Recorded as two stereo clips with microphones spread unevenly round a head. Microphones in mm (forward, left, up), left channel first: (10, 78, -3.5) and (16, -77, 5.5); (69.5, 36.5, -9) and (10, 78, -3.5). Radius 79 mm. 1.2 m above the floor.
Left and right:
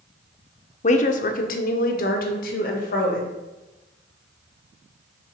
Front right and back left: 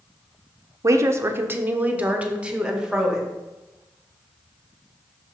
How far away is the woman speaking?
About 0.7 m.